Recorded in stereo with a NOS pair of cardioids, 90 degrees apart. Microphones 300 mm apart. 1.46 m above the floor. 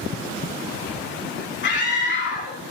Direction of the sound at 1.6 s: 35° left.